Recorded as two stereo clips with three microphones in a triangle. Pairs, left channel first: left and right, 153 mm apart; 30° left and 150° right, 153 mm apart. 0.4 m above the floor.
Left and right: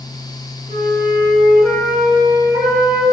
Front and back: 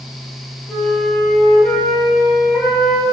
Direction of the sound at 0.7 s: 30° right.